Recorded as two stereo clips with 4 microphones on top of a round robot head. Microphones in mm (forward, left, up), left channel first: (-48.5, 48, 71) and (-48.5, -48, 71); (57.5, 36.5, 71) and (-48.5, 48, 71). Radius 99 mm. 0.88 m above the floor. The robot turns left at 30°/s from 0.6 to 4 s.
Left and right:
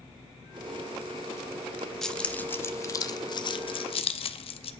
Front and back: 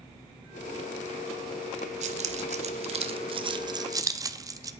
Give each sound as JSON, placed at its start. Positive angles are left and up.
{"t": 2.0, "sound": "keys jangling", "azimuth_deg": 175, "distance_m": 0.8}